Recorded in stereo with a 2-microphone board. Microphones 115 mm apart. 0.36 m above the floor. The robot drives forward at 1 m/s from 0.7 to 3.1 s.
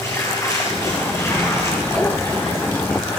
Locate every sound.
0.0 s running water: 25° left (ahead or behind), 8 m; by 3.2 s 20° left (ahead or behind), 10 m